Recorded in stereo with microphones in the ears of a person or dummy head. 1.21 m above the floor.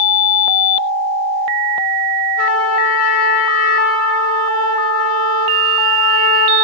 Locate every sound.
2.4 s a trumpet: 80° left, 4.5 m